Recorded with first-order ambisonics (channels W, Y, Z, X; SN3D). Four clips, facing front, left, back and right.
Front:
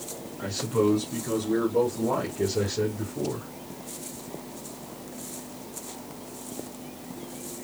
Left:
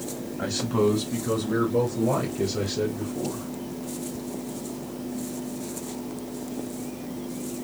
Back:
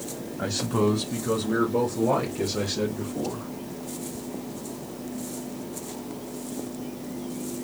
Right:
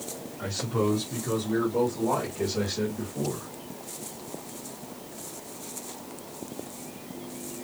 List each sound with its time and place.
0.4 s a man speaking: 145° left, 1.0 m; by 3.5 s 160° left, 3.5 m